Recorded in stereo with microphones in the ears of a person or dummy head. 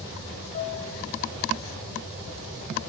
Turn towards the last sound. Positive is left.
turn(degrees=60)  # may be behind; listen again after turning